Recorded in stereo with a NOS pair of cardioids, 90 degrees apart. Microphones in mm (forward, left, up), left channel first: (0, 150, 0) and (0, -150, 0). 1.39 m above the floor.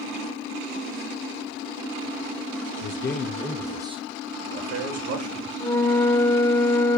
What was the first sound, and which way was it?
A man speaking, 45° left.